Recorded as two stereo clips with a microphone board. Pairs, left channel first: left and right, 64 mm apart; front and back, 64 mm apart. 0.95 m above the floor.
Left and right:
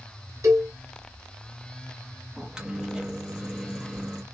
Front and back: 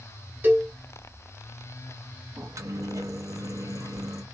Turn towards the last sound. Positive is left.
turn(degrees=-165)